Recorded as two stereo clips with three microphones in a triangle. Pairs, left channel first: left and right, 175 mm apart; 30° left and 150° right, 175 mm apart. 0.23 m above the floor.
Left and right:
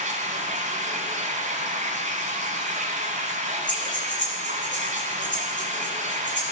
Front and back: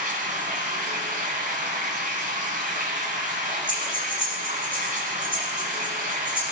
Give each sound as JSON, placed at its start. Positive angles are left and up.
{"t": 0.0, "sound": "running water", "azimuth_deg": -130, "distance_m": 1.9}
{"t": 3.7, "sound": "breathing", "azimuth_deg": 90, "distance_m": 4.0}